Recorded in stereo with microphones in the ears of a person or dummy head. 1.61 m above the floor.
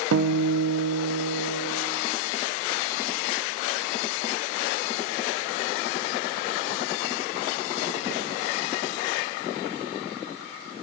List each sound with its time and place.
0.1 s a guitar: 90° right, 0.6 m